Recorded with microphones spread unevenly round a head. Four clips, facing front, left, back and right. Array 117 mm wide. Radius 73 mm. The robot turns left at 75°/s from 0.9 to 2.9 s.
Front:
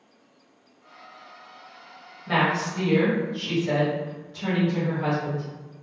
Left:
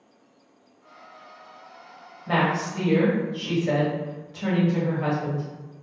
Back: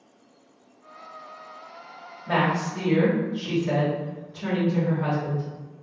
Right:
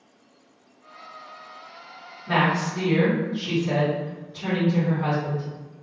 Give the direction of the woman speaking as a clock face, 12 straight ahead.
7 o'clock.